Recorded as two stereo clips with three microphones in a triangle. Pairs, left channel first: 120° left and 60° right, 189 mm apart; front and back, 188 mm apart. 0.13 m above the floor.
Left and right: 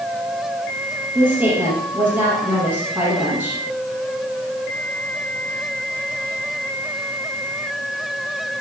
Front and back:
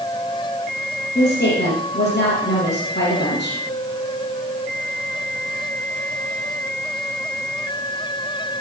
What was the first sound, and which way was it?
A woman speaking, 20° left.